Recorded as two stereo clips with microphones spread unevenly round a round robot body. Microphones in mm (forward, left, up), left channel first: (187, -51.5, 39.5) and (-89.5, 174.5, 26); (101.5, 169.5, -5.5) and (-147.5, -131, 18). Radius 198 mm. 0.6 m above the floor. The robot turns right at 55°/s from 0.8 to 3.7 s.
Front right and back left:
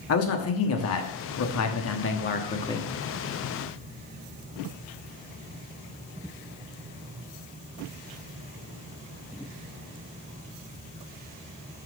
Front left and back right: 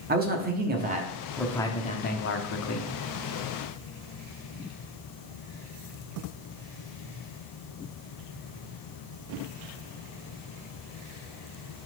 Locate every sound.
0.1 s a man speaking: 70° right, 1.1 m; by 2.9 s 45° left, 1.1 m